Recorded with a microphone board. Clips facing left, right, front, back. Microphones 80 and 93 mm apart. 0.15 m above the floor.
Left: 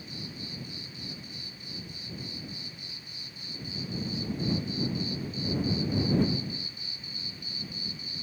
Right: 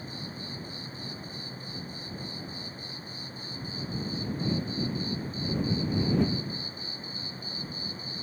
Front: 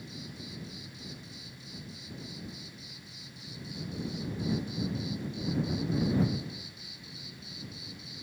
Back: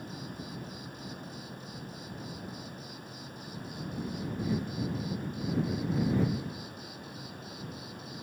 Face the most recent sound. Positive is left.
turn(degrees=-140)